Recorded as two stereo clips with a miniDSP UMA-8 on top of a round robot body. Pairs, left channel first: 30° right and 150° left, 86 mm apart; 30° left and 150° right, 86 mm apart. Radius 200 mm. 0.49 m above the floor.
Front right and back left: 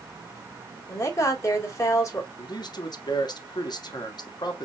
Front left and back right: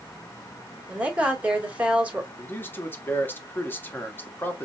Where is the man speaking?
30° right, 1.5 m.